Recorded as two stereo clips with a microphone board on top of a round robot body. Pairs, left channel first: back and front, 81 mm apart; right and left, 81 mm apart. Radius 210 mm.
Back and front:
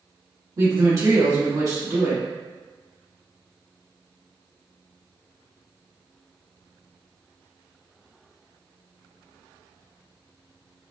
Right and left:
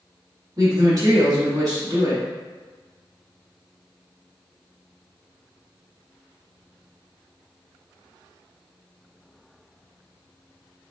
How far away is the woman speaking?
About 1.6 m.